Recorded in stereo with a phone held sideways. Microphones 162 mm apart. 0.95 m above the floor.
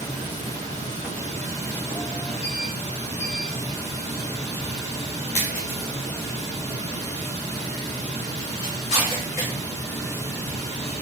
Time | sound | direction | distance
0.0 | running water | 20° left (ahead or behind) | 6 m